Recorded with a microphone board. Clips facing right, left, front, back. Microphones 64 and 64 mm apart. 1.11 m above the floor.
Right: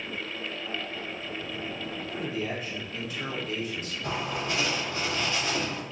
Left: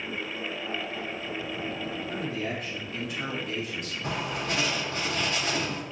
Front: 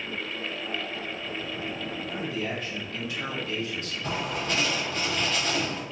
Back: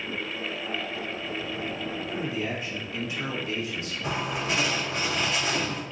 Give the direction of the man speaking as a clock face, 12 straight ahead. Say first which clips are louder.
Right 2 dB, even; 8 o'clock.